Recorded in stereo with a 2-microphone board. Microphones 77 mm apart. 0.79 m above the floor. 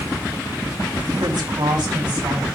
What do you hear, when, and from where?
1.2 s a woman speaking: 75° right (ahead or behind), 5 m; by 2.5 s 70° right (ahead or behind), 5.5 m